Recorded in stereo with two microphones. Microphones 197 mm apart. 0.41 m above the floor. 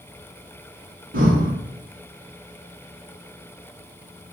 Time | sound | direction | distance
1.1 | breathing | 85° right | 0.9 m